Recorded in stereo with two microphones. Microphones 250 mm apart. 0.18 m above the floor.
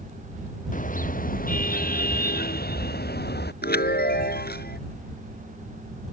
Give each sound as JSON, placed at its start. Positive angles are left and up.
{"t": 0.7, "sound": "a car horn", "side_deg": 30}
{"t": 3.6, "sound": "a chime", "side_deg": 40}